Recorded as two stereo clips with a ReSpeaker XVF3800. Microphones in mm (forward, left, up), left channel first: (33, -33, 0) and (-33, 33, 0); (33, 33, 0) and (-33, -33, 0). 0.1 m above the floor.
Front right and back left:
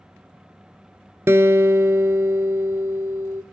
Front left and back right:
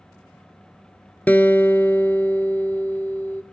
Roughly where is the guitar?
Left.